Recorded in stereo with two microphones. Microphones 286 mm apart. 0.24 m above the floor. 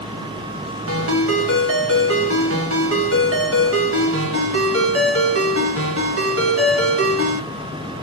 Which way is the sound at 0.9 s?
50° right (ahead or behind).